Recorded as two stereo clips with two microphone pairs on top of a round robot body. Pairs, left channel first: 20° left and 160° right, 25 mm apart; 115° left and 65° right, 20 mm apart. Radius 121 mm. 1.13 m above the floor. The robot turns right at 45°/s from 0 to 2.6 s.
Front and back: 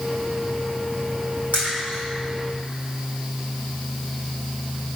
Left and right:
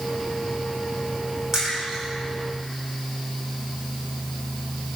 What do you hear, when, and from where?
1.5 s a splash: 130° right, 2.5 m; by 2.0 s 110° right, 2.5 m